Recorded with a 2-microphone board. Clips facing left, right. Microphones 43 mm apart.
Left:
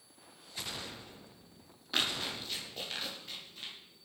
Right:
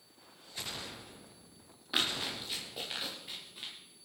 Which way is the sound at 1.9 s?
10° right (ahead or behind).